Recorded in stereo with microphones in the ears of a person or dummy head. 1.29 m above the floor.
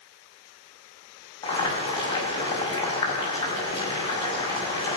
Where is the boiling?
30° left (ahead or behind), 5.5 m.